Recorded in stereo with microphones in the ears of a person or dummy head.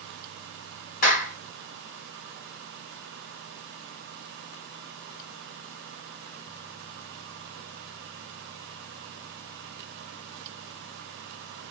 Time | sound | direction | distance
1.0 | a clap | 45° left (ahead or behind) | 1.1 m